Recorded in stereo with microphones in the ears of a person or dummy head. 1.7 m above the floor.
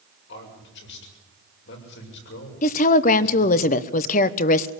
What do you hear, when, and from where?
0.3 s a man speaking: 65° left (ahead or behind), 7 m
2.6 s a woman speaking: 40° left (ahead or behind), 1.1 m